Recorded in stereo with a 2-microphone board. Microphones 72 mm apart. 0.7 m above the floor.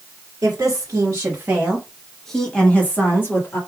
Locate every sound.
0.4 s a woman speaking: 45° right (ahead or behind), 1.6 m; by 3.6 s 35° left (ahead or behind), 1.7 m